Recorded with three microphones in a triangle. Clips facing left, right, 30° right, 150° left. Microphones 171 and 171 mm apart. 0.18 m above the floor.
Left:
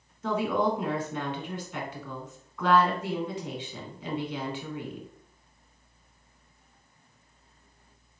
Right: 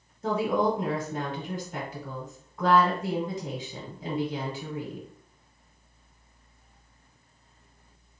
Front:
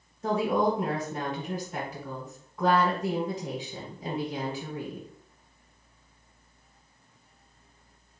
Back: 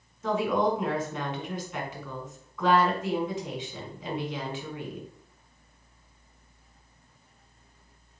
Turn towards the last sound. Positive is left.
turn(degrees=-60)